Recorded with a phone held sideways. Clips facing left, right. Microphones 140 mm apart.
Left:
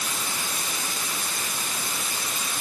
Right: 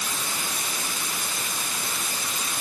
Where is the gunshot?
No gunshot in this recording.